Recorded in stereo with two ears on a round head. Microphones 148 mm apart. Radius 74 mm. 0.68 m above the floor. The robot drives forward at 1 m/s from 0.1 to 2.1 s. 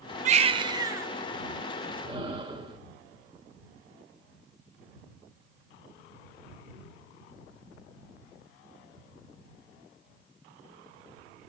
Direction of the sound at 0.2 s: 45° right (ahead or behind).